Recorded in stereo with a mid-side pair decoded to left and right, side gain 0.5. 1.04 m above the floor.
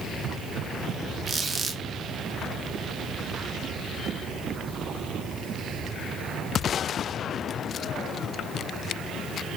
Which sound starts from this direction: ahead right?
A squeak, at 1.3 s.